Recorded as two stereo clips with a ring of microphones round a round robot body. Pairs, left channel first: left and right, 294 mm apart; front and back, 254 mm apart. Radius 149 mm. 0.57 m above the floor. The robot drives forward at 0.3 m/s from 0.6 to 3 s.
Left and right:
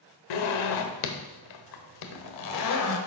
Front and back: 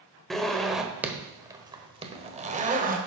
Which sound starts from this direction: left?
A zipper, at 0.3 s.